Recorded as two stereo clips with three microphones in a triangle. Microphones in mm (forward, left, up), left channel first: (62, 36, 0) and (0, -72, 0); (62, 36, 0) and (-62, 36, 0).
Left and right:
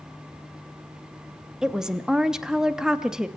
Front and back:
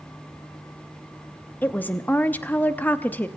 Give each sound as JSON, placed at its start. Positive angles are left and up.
{"t": 1.6, "sound": "a woman speaking", "azimuth_deg": -45, "distance_m": 0.7}